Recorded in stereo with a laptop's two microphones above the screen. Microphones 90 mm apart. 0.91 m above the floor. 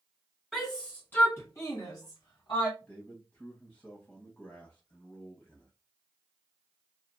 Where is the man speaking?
20° left (ahead or behind), 1.0 m.